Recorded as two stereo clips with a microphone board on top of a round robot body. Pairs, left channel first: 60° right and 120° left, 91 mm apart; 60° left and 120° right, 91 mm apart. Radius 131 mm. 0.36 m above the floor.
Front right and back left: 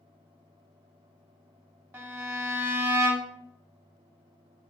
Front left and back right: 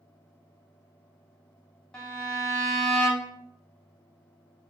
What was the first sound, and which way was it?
A violin, 135° left.